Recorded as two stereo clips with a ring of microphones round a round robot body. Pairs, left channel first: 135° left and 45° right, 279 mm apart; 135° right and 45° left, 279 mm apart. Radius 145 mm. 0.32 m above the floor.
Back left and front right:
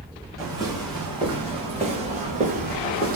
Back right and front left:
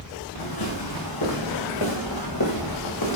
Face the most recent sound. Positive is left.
turn(degrees=-105)